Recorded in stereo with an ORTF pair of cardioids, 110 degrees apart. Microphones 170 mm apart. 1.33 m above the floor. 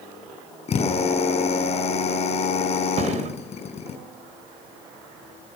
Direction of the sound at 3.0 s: 45° right.